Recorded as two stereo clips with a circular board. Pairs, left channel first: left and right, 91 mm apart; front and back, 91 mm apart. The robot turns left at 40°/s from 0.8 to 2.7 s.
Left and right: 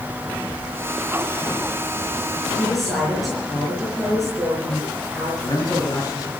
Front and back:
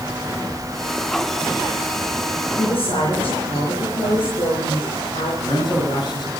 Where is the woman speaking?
5° left, 5.5 m; by 5.3 s straight ahead, 5.5 m.